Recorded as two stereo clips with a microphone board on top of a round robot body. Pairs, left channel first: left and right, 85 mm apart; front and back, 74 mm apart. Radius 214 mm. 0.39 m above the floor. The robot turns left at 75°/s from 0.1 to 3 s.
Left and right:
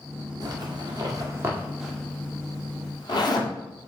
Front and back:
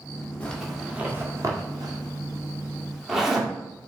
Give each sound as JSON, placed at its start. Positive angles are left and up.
{"t": 0.4, "sound": "a zipper", "azimuth_deg": -70, "distance_m": 1.9}